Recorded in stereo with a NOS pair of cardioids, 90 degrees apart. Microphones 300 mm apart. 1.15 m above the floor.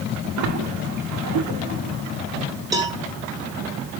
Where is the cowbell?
10° right, 1.9 m.